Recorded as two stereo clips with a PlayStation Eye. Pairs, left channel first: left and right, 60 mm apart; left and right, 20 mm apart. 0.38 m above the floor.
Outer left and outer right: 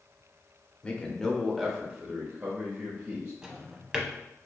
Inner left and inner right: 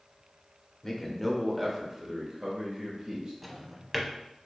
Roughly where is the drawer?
Centre.